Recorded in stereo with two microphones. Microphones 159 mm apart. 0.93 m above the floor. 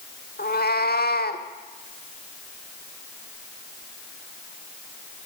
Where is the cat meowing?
80° left, 1.5 m.